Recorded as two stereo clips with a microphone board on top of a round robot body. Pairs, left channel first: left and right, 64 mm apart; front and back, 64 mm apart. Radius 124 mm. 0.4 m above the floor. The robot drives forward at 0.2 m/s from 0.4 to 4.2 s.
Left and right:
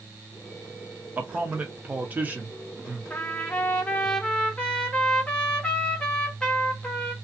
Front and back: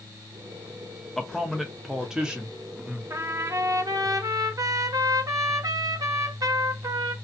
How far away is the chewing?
I don't hear chewing.